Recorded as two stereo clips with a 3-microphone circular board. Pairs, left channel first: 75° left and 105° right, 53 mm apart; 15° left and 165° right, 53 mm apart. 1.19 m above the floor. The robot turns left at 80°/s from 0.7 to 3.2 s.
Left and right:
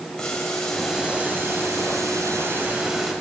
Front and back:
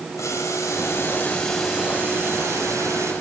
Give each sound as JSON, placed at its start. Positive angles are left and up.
{"t": 0.2, "sound": "boiling", "azimuth_deg": -5, "distance_m": 5.5}